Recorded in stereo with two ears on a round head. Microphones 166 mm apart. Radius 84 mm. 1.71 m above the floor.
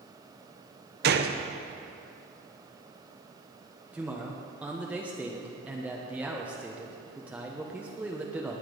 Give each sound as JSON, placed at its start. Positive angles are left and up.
{"t": 1.0, "sound": "a gunshot", "side_deg": -55, "distance_m": 0.9}
{"t": 3.9, "sound": "a man speaking", "side_deg": -5, "distance_m": 1.3}